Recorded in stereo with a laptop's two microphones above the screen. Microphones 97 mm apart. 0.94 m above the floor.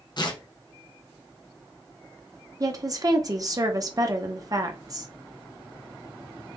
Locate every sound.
0.2 s tearing paper: 50° left (ahead or behind), 0.6 m
2.6 s a woman speaking: 35° right (ahead or behind), 0.6 m